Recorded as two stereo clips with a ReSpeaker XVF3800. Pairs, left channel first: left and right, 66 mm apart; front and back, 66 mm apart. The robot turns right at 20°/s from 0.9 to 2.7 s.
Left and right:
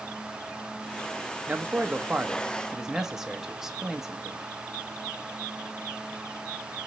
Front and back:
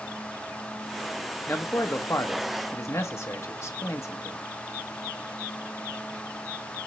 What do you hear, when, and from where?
1.5 s a man speaking: 35° right, 1.0 m; by 4.4 s 10° right, 1.0 m